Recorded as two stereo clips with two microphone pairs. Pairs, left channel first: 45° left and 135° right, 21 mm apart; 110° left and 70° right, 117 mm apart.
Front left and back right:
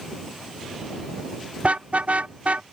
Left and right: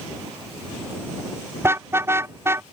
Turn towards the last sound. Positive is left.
turn(degrees=-140)